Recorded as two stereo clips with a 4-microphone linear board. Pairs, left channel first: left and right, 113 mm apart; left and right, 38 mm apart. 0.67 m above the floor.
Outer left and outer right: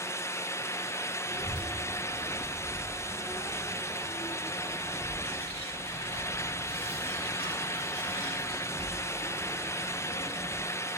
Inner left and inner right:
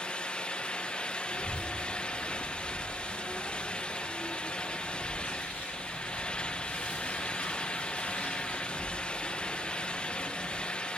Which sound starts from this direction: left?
A child speaking, at 1.3 s.